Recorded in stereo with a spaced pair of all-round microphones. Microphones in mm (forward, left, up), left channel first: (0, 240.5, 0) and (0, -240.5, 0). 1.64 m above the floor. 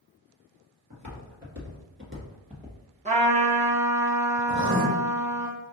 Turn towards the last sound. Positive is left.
turn(degrees=-35)  # may be behind; listen again after turning